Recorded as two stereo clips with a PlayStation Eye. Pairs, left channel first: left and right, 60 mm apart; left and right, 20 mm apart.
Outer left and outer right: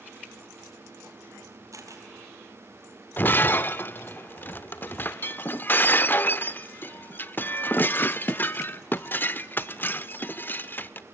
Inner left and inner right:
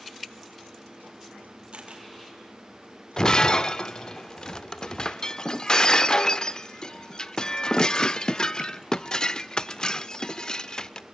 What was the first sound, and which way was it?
A camera shutter, 60° right (ahead or behind).